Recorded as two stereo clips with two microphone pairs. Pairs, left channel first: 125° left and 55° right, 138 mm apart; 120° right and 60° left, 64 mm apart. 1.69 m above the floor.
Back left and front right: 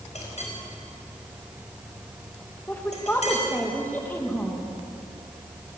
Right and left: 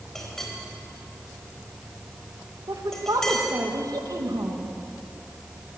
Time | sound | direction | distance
0.1 | a clink | 160° left | 4.5 m
2.7 | a woman speaking | 50° left | 2.5 m